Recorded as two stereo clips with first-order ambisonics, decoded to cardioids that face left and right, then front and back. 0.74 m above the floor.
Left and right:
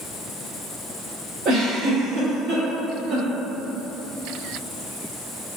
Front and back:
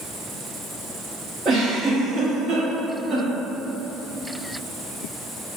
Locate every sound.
1.4 s a giggle: 125° right, 1.2 m